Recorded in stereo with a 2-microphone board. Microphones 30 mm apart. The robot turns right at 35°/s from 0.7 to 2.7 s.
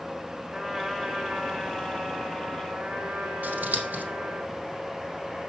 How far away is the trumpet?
About 4.5 m.